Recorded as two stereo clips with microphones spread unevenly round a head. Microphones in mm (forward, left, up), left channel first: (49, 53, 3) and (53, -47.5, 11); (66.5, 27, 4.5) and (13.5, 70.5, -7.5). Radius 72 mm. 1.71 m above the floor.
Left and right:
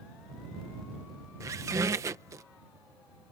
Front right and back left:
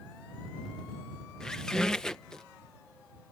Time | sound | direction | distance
1.4 | a squeak | 95° right | ?